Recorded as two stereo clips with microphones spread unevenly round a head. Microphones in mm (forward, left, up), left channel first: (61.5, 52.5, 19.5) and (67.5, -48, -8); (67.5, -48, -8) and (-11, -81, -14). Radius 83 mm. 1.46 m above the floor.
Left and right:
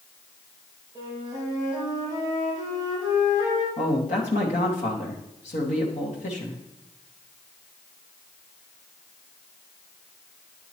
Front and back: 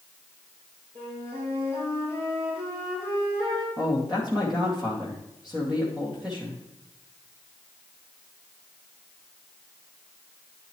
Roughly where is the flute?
Behind left.